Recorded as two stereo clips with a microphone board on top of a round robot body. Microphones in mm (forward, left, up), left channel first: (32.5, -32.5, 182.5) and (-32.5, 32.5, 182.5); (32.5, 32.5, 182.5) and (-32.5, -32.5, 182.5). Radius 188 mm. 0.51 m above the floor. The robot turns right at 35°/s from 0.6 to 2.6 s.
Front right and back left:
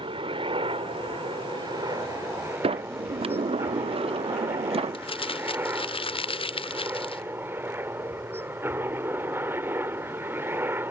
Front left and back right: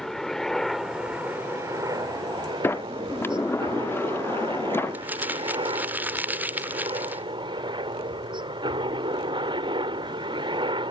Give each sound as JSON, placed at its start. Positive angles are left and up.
{"t": 0.0, "sound": "a helicopter", "azimuth_deg": 130}
{"t": 2.6, "sound": "a sliding door", "azimuth_deg": 115}
{"t": 4.9, "sound": "crumpling", "azimuth_deg": -65}